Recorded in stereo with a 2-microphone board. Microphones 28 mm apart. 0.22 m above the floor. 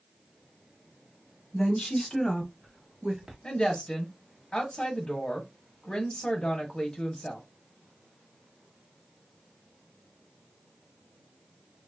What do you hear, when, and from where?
1.5 s a woman speaking: 30° left (ahead or behind), 1.2 m; by 3.3 s 30° right (ahead or behind), 1.2 m
3.4 s a woman speaking: 30° left (ahead or behind), 1.1 m